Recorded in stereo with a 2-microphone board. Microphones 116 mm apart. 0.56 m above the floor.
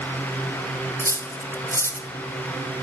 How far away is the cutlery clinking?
About 1.0 m.